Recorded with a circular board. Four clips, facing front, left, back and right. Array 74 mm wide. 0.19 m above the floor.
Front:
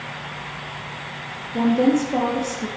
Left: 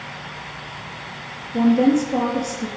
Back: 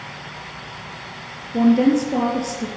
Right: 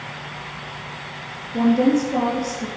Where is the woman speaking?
175° right, 3.5 m.